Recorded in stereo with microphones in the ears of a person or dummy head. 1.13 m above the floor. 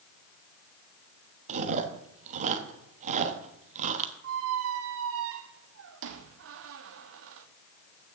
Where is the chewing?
40° right (ahead or behind), 1.2 m.